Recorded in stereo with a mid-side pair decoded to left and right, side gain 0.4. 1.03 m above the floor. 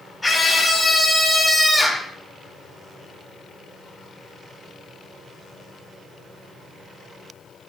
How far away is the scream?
About 6 m.